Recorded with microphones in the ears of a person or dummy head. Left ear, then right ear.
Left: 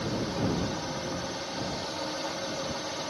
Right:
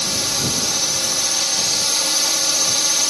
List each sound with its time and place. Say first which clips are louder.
0.0 s a drone: right 11 dB; 70° right (ahead or behind)